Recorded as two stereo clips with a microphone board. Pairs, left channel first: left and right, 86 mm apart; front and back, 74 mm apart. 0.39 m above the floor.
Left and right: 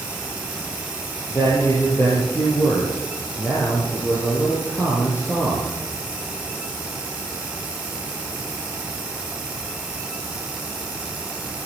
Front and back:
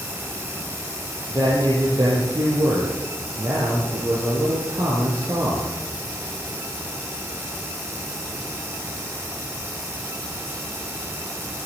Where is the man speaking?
150° left, 9.5 m.